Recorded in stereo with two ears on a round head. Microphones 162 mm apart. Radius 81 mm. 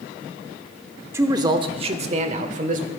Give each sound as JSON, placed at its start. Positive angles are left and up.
{"t": 1.1, "sound": "a man speaking", "side_deg": -15, "distance_m": 0.7}